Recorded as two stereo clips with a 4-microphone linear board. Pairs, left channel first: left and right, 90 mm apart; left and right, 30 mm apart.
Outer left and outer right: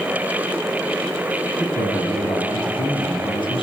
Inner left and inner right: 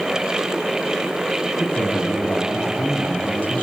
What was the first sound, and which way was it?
A man speaking, 65° left (ahead or behind).